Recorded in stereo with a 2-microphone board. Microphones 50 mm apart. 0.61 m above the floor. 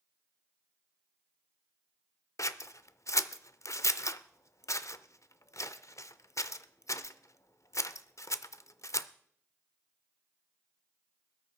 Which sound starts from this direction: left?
Scissors, at 2.4 s.